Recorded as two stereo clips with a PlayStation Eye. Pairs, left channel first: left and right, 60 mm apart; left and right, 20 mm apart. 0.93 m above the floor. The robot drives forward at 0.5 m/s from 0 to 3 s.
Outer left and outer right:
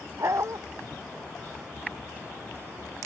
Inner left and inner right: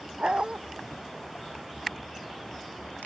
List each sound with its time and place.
0.2 s a dog barking: 60° right (ahead or behind); by 0.6 s 55° right (ahead or behind)